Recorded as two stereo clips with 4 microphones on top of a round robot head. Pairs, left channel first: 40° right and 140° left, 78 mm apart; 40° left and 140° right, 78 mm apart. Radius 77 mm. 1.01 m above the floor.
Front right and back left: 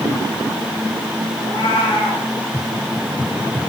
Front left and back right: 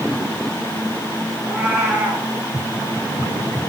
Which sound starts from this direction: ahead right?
A cat meowing, at 1.4 s.